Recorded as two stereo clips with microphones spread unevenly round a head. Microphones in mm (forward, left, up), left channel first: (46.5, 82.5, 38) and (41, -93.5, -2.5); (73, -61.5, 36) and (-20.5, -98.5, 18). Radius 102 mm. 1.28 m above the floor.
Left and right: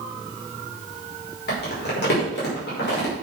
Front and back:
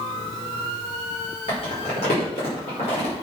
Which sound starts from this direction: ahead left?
Crumpling, at 1.5 s.